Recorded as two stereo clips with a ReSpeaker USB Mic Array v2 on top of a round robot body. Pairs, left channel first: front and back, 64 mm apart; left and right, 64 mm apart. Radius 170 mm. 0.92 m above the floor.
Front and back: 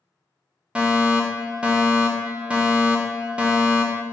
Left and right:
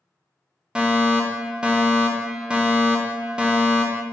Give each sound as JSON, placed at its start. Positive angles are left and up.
{"t": 0.8, "sound": "a fire alarm", "azimuth_deg": -140, "distance_m": 1.3}